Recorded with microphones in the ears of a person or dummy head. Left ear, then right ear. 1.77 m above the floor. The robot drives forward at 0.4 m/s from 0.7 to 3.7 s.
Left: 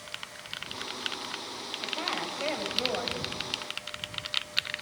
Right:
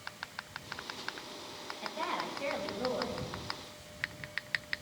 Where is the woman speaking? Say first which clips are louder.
Left 3 dB; 85° left, 9 m.